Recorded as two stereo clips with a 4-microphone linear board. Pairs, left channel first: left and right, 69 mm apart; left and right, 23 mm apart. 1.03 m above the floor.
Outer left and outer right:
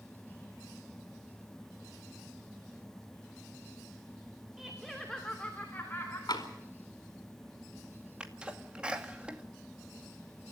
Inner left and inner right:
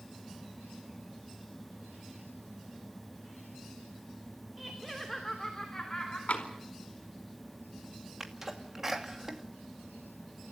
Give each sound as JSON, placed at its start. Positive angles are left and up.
{"t": 4.6, "sound": "laughter", "side_deg": -5, "distance_m": 3.0}
{"t": 6.3, "sound": "tapping", "side_deg": 75, "distance_m": 4.5}
{"t": 8.2, "sound": "a sneeze", "side_deg": -15, "distance_m": 2.5}